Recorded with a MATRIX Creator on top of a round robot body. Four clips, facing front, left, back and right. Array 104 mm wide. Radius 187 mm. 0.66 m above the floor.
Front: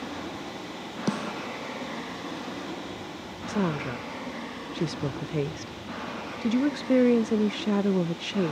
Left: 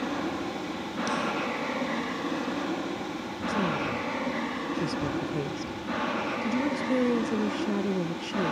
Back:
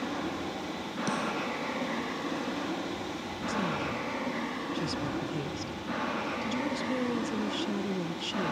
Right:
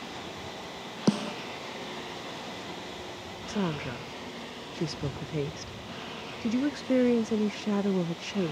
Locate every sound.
0.0 s an aircraft: 100° left; by 8.5 s 110° left
1.1 s a snare drum: 70° right
3.5 s a woman speaking: 15° right